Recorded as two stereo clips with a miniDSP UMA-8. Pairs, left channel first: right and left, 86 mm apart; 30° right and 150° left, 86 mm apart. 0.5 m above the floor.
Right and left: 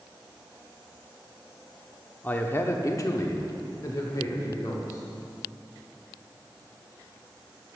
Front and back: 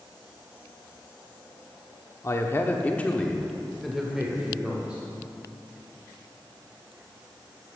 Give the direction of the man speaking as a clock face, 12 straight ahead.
1 o'clock.